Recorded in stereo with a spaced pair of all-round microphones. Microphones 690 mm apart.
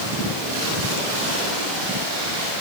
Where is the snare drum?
No snare drum in this recording.